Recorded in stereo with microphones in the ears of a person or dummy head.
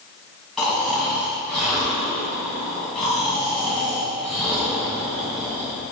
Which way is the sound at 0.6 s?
5° left (ahead or behind).